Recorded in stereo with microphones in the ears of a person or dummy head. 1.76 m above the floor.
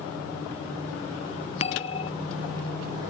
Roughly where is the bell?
Left.